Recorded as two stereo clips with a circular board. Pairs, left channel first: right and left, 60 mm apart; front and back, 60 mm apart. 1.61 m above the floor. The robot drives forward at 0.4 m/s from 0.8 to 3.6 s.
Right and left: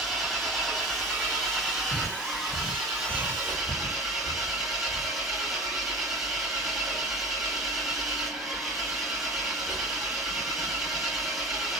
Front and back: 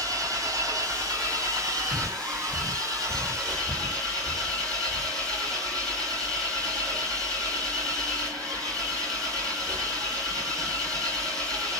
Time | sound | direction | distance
0.0 | an engine running | straight behind | 3 m
1.9 | breathing | 75° right | 1.4 m